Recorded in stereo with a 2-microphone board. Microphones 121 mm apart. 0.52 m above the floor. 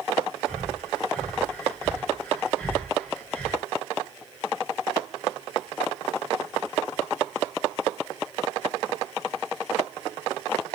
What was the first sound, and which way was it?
Breathing, 5° left (ahead or behind).